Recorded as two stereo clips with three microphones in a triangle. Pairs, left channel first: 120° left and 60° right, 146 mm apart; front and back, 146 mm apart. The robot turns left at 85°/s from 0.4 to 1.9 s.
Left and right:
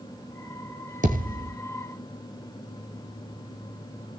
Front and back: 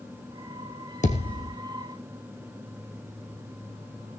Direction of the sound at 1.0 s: 30° right.